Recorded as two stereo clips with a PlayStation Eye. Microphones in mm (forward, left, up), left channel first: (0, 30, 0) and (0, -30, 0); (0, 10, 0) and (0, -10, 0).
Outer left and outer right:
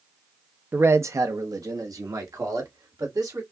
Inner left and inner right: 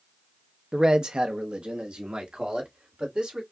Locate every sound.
0.7 s a man speaking: 35° right (ahead or behind), 0.6 m; by 3.4 s 80° right, 3 m